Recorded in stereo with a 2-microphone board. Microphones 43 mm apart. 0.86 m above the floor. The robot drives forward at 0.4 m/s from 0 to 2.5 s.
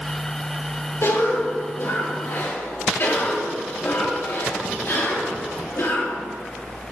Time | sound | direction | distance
1.0 | a cough | 75° left (ahead or behind) | 2 m